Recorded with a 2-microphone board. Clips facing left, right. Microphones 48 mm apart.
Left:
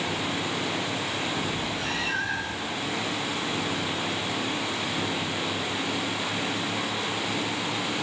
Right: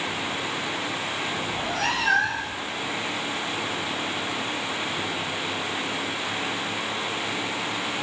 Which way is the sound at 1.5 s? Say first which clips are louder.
Right 3 dB; 70° right (ahead or behind).